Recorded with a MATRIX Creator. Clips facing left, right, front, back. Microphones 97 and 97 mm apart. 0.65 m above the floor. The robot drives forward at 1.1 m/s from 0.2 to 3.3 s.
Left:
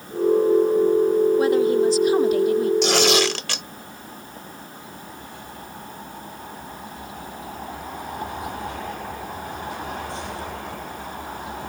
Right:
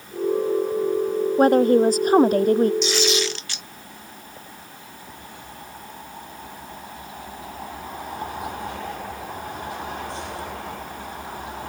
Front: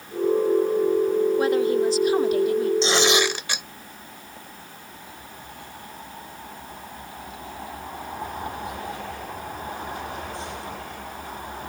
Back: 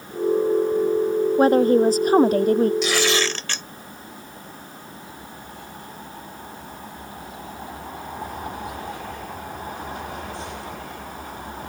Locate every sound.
1.4 s a woman speaking: 130° right; by 2.7 s 135° right
2.8 s tearing paper: 60° left; by 3.7 s 75° left